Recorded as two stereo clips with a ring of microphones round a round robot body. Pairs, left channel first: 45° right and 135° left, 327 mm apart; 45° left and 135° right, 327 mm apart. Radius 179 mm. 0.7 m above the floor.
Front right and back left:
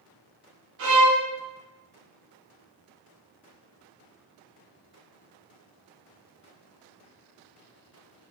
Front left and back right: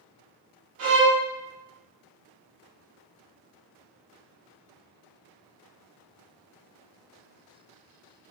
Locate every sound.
0.8 s a violin: straight behind, 1.4 m